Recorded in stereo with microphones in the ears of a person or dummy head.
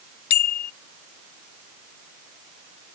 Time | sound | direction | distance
0.3 | a bicycle bell | 55° left (ahead or behind) | ?